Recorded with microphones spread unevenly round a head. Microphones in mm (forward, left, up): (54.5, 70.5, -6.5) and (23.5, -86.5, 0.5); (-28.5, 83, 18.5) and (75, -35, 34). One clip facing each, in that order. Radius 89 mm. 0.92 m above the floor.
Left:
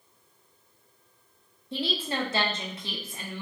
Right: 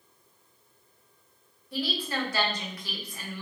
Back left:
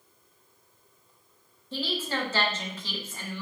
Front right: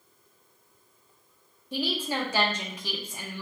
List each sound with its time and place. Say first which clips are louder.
1.7 s a woman speaking: left 1 dB, front right 2 dB; 30° left, 0.5 m